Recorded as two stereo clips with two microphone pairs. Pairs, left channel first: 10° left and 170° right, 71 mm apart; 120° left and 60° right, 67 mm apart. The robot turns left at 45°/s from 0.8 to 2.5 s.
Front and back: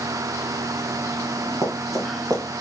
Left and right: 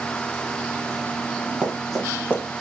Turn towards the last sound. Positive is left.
turn(degrees=165)